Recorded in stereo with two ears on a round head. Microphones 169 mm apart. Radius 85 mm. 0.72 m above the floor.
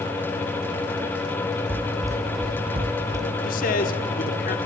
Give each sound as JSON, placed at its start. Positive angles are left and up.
{"t": 1.7, "sound": "running footsteps", "side_deg": -10, "distance_m": 2.0}
{"t": 3.4, "sound": "a man speaking", "side_deg": 50, "distance_m": 1.7}